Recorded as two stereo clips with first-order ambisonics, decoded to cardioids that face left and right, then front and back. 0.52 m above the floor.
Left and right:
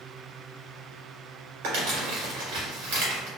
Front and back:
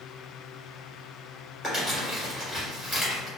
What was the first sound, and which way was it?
Crumpling, 85° right.